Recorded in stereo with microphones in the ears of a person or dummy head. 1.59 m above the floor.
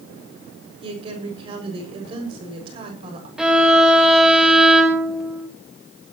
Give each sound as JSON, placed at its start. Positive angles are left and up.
{"t": 0.8, "sound": "a woman speaking", "side_deg": -25, "distance_m": 7.0}
{"t": 3.4, "sound": "a violin", "side_deg": -10, "distance_m": 1.5}